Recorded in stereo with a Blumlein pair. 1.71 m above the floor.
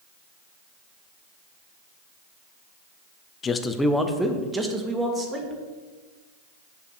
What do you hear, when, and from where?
3.4 s a man speaking: 25° left, 0.6 m; by 5.6 s 20° right, 2.0 m